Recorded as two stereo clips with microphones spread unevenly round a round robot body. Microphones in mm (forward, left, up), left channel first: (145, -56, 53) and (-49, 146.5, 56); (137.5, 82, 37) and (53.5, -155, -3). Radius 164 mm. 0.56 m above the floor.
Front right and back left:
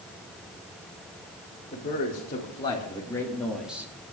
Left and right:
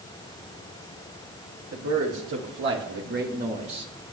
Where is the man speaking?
105° right, 2.5 m; by 4.1 s 165° right, 1.3 m.